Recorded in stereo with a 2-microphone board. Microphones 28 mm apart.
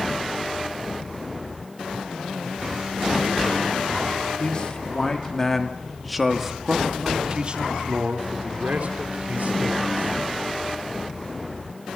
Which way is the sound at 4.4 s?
40° left (ahead or behind).